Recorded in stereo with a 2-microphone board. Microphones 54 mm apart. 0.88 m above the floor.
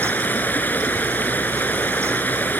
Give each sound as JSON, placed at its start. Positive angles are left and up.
{"t": 0.0, "sound": "running water", "side_deg": 30}